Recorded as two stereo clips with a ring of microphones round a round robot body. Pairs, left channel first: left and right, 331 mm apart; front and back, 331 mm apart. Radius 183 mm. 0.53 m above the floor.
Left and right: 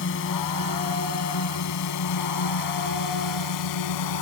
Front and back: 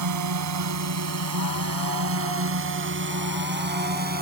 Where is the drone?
150° left; by 4.2 s 120° left.